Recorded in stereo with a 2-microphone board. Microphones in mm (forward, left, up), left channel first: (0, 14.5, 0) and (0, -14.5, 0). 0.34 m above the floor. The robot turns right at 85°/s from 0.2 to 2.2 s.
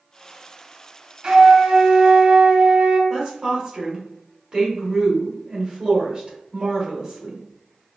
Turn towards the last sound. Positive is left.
turn(degrees=-25)  # may be behind; listen again after turning